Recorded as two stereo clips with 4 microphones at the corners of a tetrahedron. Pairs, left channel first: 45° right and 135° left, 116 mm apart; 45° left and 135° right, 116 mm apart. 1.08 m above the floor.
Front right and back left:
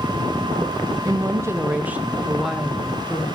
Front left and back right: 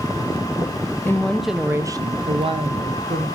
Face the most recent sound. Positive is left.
turn(degrees=-125)